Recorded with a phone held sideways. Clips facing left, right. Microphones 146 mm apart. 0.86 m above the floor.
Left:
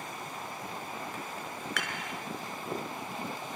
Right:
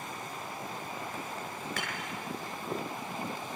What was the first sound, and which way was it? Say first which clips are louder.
Dishes clattering: left 1 dB; 25° right (ahead or behind).